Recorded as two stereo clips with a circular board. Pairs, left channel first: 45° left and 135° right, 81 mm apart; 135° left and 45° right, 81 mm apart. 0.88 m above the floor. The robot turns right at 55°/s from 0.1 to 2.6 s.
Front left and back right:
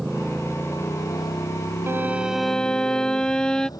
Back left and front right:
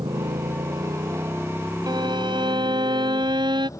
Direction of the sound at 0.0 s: 50° right.